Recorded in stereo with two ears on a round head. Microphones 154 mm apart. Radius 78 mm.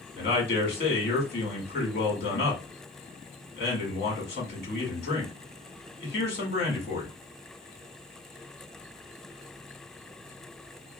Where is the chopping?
No chopping in this recording.